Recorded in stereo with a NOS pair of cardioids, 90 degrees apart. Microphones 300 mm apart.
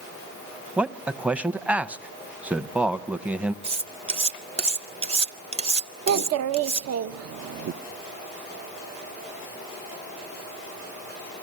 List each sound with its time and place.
0.8 s a man speaking: 5° right, 0.7 m
3.6 s cutlery clinking: 20° right, 0.7 m
6.1 s a child speaking: 55° right, 0.7 m